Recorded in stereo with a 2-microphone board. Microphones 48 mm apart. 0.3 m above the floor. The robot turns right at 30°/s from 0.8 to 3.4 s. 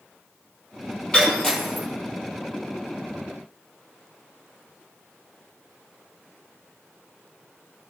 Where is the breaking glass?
20° left (ahead or behind), 2 m; by 1.9 s 5° right (ahead or behind), 2 m.